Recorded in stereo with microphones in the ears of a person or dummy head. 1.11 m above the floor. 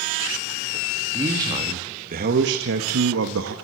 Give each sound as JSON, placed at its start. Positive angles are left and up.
{"t": 1.1, "sound": "a man speaking", "side_deg": -15, "distance_m": 2.5}